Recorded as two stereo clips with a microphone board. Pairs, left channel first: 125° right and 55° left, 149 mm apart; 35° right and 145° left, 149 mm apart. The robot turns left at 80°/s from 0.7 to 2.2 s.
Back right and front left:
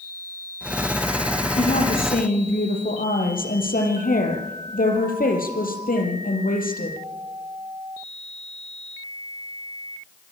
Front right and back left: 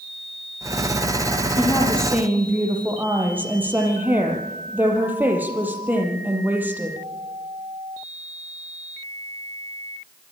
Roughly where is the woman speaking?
Right.